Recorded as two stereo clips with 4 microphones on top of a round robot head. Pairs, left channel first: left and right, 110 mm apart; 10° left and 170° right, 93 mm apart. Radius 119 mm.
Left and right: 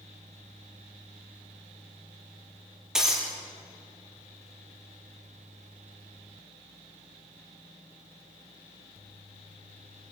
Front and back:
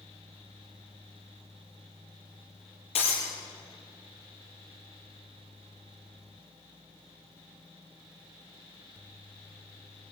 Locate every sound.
3.0 s breaking glass: 5° right, 5.5 m